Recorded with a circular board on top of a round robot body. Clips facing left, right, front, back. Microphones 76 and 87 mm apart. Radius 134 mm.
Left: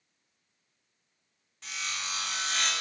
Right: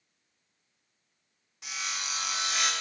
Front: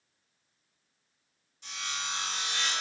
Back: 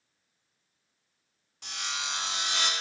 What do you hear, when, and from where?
1.6 s sawing: 170° right, 1.9 m